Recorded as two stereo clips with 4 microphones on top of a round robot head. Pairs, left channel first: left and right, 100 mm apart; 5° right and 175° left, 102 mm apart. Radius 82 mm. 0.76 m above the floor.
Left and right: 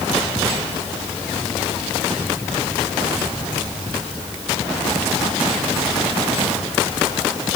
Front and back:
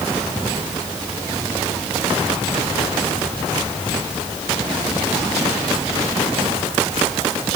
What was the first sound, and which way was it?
Only background noise.